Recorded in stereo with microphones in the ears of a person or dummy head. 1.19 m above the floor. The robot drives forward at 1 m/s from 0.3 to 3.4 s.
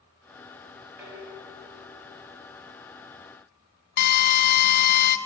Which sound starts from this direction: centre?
Dishes clattering, at 1.0 s.